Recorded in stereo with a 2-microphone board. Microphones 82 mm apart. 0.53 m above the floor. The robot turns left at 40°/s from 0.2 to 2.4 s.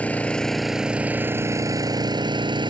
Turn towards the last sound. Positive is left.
turn(degrees=-70)